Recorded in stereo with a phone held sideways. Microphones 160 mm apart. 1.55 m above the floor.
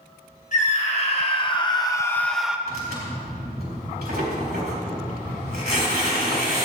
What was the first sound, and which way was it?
A scream, 45° left (ahead or behind).